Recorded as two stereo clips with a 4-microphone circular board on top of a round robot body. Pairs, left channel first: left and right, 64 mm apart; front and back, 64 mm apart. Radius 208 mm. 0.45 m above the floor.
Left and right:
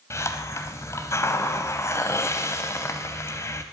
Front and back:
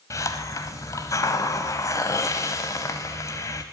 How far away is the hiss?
About 0.5 m.